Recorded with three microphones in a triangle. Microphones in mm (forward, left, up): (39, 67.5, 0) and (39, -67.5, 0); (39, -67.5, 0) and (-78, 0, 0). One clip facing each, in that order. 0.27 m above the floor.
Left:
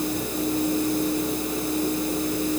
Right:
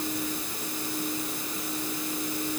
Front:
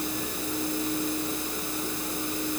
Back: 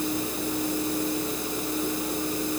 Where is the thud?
No thud in this recording.